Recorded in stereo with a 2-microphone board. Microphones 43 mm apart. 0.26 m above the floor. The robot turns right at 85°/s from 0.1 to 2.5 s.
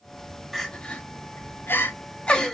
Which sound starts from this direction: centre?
Crying, at 0.5 s.